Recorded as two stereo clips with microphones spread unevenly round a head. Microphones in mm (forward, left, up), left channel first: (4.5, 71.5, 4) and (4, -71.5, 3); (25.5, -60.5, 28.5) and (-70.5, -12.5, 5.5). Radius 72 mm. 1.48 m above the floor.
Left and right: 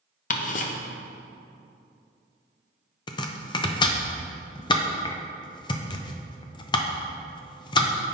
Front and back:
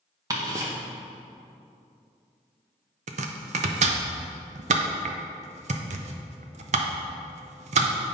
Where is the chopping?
140° left, 0.6 m.